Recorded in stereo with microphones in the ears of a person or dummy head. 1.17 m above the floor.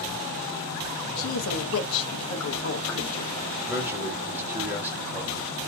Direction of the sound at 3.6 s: 15° right (ahead or behind).